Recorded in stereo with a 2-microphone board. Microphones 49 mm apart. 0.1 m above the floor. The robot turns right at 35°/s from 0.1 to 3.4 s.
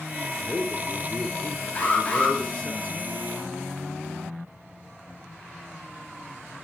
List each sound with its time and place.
0.4 s a man speaking: 5° left (ahead or behind), 1.1 m; by 2.8 s 20° left (ahead or behind), 1.1 m
1.8 s an alarm: 30° left (ahead or behind), 3 m; by 2.4 s 20° left (ahead or behind), 3 m